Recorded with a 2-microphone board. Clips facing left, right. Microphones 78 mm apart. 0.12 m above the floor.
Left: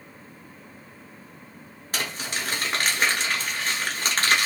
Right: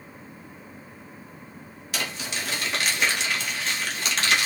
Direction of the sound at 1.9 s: 40° left (ahead or behind).